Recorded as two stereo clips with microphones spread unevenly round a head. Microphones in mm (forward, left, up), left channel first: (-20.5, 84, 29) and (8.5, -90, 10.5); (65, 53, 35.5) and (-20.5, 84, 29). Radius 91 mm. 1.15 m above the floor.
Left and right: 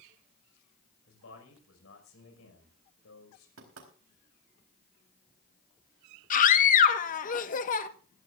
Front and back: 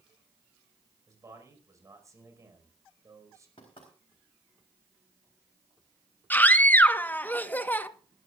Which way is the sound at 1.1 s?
105° left.